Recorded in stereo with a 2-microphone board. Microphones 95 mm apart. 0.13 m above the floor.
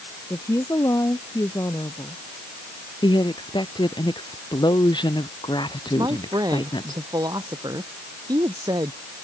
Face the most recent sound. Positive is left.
turn(degrees=-45)  # may be behind; listen again after turning